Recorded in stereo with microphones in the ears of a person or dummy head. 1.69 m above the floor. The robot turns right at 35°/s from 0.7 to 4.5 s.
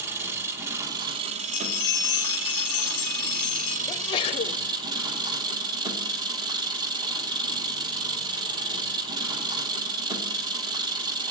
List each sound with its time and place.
0.0 s an engine running: 160° right, 1.3 m; by 11.3 s 25° right, 1.3 m
1.4 s a bell: 60° left, 2.0 m; by 3.8 s 145° left, 2.0 m
3.9 s a sneeze: 20° left (ahead or behind), 0.6 m; by 4.6 s 40° left (ahead or behind), 0.6 m